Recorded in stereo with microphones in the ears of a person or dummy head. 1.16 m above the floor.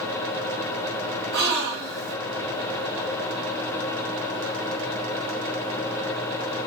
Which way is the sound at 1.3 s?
65° right (ahead or behind).